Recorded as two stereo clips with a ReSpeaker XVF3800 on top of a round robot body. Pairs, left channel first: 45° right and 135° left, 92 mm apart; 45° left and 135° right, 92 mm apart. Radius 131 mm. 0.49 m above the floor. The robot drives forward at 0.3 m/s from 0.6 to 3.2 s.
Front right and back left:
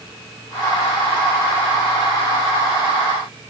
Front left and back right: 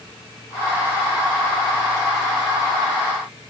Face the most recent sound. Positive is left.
No sound to turn to.